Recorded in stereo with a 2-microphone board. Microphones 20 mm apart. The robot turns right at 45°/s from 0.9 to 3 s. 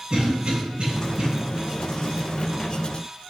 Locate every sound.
0.1 s a cough: 55° right (ahead or behind), 2 m